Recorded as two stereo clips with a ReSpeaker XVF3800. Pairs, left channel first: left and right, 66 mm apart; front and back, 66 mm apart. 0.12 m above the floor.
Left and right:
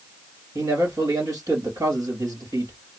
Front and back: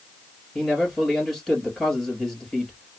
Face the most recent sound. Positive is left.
turn(degrees=-90)